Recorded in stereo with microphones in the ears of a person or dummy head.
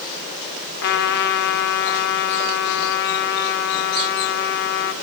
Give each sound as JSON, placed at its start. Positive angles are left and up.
{"t": 0.8, "sound": "a trumpet", "side_deg": 55, "distance_m": 1.8}